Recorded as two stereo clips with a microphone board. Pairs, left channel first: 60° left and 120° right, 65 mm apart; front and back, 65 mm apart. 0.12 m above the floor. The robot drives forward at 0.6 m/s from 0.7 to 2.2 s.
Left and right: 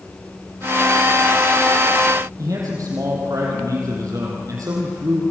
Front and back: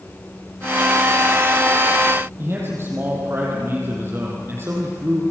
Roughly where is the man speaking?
Behind right.